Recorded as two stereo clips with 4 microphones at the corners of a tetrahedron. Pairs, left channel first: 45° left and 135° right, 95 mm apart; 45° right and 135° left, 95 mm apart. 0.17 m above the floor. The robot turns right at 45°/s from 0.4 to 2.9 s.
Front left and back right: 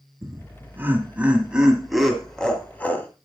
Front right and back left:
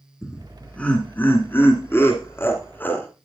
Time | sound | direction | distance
0.2 | laughter | 120° right | 1.5 m